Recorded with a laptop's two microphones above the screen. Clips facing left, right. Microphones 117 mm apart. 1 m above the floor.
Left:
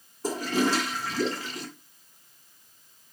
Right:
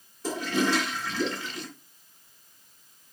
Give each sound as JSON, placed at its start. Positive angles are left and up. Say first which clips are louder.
{"t": 0.2, "sound": "a toilet flushing", "louder": "left 1 dB", "side_deg": 40, "distance_m": 3.0}